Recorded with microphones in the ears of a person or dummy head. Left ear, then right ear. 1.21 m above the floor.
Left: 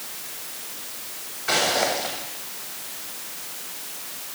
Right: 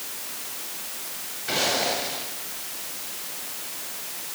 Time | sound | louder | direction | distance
1.5 | footsteps | left 3 dB | 40° left (ahead or behind) | 7 m